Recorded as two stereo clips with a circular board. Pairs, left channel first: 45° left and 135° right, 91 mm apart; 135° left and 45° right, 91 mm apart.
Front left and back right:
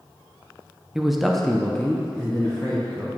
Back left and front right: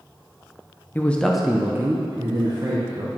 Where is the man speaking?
145° left, 0.6 m; by 3.1 s 30° right, 1.3 m.